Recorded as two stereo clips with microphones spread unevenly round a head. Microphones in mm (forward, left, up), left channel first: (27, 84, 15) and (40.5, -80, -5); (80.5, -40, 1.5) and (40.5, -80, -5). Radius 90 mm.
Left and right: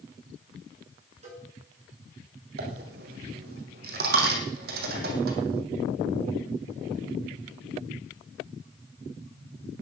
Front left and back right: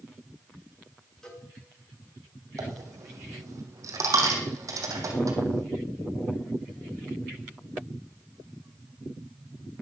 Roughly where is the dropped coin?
Behind right.